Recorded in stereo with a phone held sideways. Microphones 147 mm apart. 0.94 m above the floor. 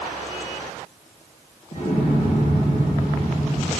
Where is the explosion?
50° left (ahead or behind), 2.5 m.